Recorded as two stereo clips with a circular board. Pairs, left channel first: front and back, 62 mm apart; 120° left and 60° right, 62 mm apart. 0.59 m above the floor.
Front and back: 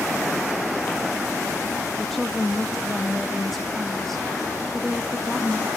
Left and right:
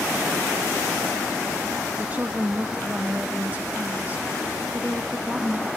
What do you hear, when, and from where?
2.0 s a woman speaking: 85° right, 0.8 m